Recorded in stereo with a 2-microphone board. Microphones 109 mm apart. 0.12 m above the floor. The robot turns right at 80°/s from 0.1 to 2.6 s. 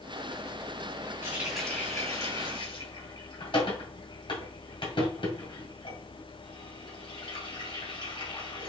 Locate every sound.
1.2 s a running tap: 25° right (ahead or behind), 1.6 m; by 8.7 s 55° left (ahead or behind), 1.6 m